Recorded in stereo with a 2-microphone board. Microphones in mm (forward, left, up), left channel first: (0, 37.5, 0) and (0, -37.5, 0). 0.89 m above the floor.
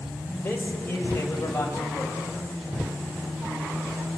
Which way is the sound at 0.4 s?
30° left (ahead or behind).